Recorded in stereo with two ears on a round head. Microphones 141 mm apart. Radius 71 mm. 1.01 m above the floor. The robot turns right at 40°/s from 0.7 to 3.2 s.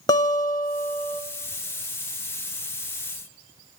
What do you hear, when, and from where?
0.1 s a guitar: 30° left (ahead or behind), 1.2 m; by 1.2 s 10° left (ahead or behind), 1.2 m